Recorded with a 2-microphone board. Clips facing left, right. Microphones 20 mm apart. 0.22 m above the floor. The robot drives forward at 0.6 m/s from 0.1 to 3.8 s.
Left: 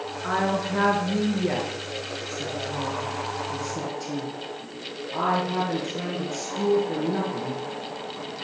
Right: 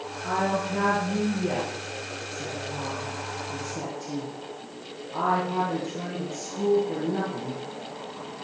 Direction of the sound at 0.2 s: 45° left (ahead or behind).